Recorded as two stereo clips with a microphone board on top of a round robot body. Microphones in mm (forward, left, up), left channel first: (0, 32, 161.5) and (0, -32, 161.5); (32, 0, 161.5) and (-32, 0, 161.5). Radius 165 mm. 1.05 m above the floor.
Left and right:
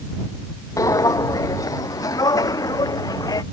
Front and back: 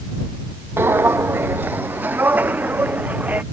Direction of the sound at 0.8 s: 125° left.